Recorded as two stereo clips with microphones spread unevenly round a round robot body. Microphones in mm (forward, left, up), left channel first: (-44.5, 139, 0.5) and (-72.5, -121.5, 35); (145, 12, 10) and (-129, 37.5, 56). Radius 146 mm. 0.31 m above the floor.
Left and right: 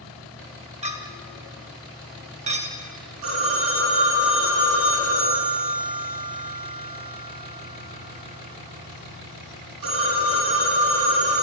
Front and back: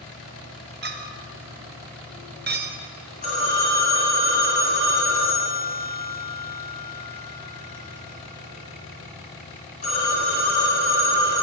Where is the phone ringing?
70° right, 2.5 m.